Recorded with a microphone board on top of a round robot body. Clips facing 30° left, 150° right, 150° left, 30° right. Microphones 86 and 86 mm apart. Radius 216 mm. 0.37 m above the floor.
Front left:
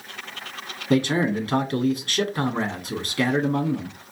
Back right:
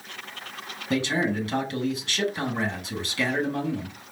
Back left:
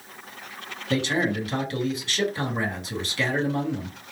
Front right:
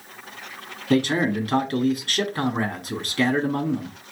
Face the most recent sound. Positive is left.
turn(degrees=-5)